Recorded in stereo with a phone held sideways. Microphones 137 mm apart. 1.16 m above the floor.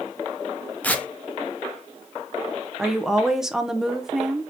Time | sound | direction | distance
0.8 | tearing paper | 10° left (ahead or behind) | 0.6 m
2.8 | a woman speaking | 5° right (ahead or behind) | 0.7 m